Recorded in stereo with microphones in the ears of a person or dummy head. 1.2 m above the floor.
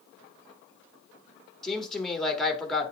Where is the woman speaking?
10° left (ahead or behind), 1.6 m.